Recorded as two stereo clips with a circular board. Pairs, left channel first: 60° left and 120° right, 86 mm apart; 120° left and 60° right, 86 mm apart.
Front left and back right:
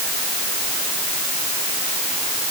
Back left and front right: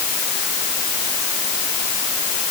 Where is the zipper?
I don't hear a zipper.